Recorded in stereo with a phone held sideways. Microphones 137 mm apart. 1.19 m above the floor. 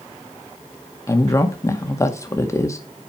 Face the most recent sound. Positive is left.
turn(degrees=25)  # may be behind; listen again after turning